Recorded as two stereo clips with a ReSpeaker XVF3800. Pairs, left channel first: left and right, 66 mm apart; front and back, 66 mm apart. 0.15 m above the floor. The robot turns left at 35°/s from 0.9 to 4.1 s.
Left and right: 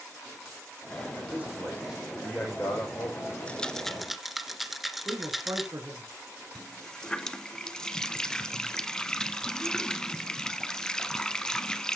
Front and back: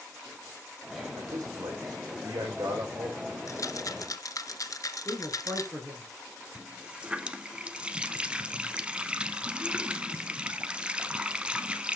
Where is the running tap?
145° left, 0.7 m.